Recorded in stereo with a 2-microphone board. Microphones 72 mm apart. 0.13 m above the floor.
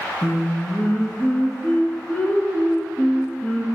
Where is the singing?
25° left (ahead or behind), 0.6 m.